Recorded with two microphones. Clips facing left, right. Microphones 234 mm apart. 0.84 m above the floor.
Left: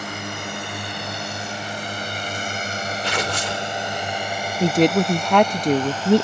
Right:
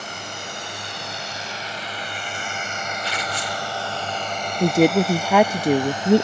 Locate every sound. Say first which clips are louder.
0.0 s a drone: left 5 dB; 65° left (ahead or behind); by 6.2 s 20° right (ahead or behind)
3.0 s tearing paper: left 6 dB; 80° left
4.6 s a woman speaking: right 1 dB; 5° right (ahead or behind)